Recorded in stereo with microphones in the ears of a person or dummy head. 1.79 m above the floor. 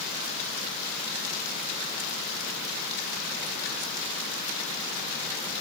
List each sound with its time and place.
Only background noise.